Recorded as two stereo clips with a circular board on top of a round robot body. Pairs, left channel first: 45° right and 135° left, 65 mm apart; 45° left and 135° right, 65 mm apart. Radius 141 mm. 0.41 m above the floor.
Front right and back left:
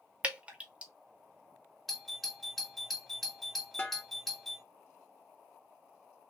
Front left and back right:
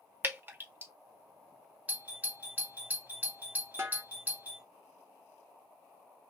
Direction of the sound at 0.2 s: 170° right.